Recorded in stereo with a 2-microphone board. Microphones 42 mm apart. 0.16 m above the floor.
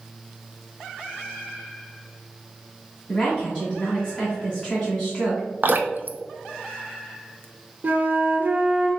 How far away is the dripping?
About 0.6 m.